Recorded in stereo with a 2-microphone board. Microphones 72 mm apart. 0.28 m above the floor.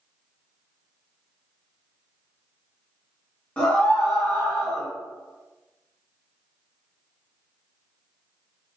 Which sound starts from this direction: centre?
A scream, at 3.6 s.